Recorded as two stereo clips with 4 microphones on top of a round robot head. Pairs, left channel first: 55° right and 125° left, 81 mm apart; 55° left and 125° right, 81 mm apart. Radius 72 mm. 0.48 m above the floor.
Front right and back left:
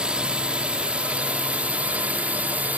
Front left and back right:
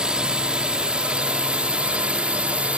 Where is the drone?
Straight behind; by 2.8 s 175° left.